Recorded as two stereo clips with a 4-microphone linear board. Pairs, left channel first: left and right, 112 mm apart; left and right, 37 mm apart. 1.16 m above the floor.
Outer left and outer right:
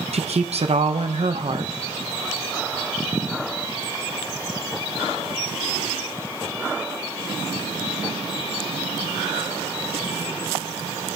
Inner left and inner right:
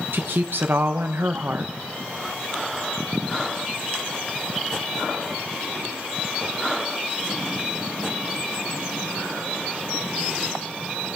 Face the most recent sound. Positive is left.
turn(degrees=-70)  # may be behind; listen again after turning